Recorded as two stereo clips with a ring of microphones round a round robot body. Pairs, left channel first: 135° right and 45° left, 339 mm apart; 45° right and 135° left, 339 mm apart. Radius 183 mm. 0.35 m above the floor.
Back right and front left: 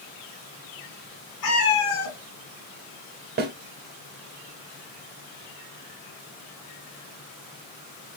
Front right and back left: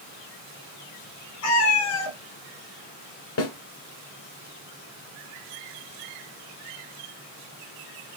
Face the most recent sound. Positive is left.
turn(degrees=-10)